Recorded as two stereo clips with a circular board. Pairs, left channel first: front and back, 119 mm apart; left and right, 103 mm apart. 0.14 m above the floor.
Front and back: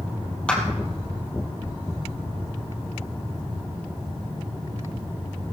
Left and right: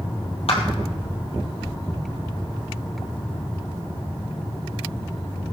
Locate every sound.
0.5 s a clap: 80° left, 3 m